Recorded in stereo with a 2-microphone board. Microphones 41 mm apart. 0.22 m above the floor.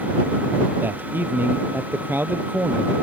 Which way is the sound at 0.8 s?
55° right (ahead or behind).